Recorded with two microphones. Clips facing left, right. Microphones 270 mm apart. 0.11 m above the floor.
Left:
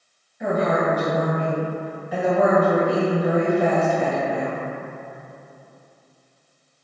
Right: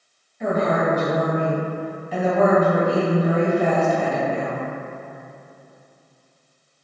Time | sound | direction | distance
0.4 | a woman speaking | 10° left (ahead or behind) | 1.5 m